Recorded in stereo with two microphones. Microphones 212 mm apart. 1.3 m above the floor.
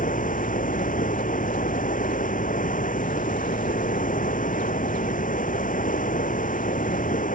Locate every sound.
0.0 s running water: 40° left (ahead or behind)